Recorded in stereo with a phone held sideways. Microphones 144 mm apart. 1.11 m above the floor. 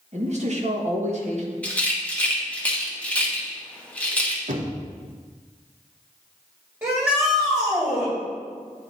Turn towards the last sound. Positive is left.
turn(degrees=-15)  # may be behind; listen again after turning